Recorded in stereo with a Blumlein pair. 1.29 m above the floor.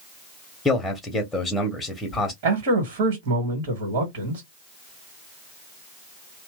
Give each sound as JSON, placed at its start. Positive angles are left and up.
{"t": 0.7, "sound": "a man speaking", "azimuth_deg": 10, "distance_m": 0.8}
{"t": 2.4, "sound": "a man speaking", "azimuth_deg": -50, "distance_m": 1.1}